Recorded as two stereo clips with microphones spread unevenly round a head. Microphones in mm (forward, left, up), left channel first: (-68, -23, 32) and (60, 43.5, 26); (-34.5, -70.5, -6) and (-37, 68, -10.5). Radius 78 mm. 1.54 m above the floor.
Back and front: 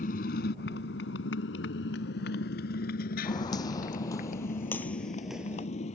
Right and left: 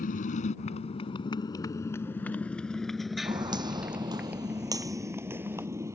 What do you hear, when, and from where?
0.0 s a motorcycle: 115° right; by 6.0 s 160° left
3.2 s footsteps: 150° left; by 5.7 s 40° left